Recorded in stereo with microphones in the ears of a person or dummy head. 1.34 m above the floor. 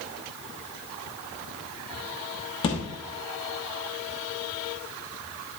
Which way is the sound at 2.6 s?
35° left (ahead or behind).